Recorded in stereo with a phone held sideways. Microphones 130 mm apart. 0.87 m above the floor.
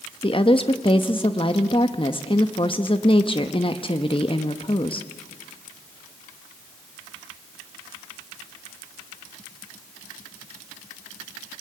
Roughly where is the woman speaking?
Left.